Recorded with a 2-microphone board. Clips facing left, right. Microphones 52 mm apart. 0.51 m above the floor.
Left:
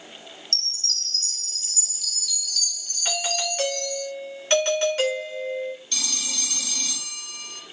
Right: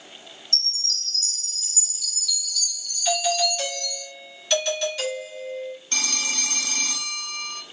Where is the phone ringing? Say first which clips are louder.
Right 5 dB; 40° right (ahead or behind), 0.9 m.